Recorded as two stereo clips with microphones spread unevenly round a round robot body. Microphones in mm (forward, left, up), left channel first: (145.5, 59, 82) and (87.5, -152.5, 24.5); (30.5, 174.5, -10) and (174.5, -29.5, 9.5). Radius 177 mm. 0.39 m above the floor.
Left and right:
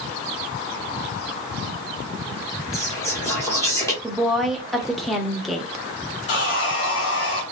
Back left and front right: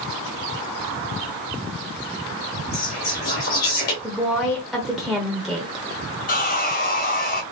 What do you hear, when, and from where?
2.7 s whispering: 165° left, 1.1 m
4.0 s a woman speaking: 155° right, 0.8 m
6.3 s sawing: 100° left, 1.9 m